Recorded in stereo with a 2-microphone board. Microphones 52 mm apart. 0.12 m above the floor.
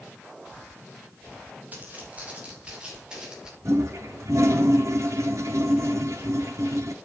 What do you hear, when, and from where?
1.7 s footsteps: 30° right (ahead or behind), 6 m; by 3.5 s 10° right (ahead or behind), 6.5 m
3.6 s a toilet flushing: 65° right (ahead or behind), 1.8 m